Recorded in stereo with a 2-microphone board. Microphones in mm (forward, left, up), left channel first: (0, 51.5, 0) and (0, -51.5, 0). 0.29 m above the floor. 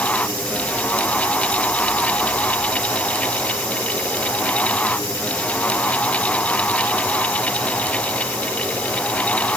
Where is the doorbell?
No doorbell in this recording.